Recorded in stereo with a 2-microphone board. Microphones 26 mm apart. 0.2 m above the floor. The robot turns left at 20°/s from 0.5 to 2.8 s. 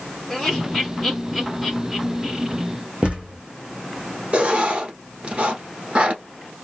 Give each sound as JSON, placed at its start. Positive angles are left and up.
{"t": 0.3, "sound": "laughter", "side_deg": 10, "distance_m": 2.0}
{"t": 3.0, "sound": "a thud", "side_deg": -40, "distance_m": 1.8}
{"t": 4.3, "sound": "writing", "side_deg": -45, "distance_m": 1.4}